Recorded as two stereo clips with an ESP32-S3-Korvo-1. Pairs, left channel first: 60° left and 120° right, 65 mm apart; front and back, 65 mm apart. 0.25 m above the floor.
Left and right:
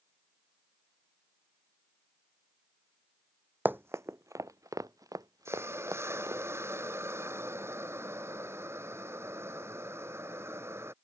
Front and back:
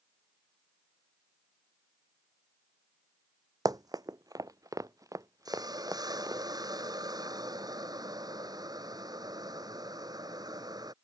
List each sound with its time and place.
3.6 s running footsteps: straight behind; by 6.4 s 145° right
5.5 s a hiss: 170° right